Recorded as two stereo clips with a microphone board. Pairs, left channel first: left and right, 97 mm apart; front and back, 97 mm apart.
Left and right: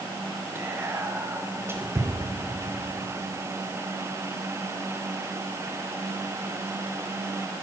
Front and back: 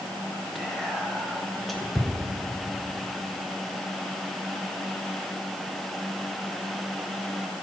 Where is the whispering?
85° right, 1.0 m.